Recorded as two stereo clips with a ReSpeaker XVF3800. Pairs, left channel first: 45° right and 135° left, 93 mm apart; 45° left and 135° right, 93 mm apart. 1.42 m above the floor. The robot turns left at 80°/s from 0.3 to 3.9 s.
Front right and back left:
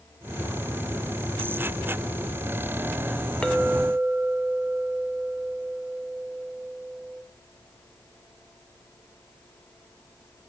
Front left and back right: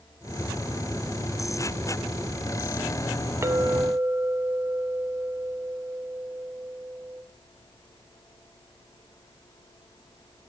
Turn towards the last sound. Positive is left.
turn(degrees=-150)